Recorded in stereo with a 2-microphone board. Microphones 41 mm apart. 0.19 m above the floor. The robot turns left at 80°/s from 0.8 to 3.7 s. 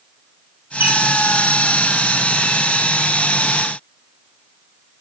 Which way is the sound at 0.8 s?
65° right (ahead or behind).